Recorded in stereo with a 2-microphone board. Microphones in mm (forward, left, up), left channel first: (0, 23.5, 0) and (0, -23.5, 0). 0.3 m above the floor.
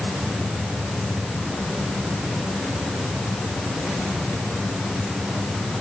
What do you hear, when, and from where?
Only background noise.